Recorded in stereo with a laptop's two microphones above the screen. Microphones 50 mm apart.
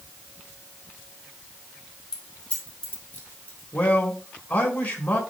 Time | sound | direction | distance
2.1 | keys jangling | 15° left (ahead or behind) | 2.5 m
3.7 | a man speaking | 35° left (ahead or behind) | 4 m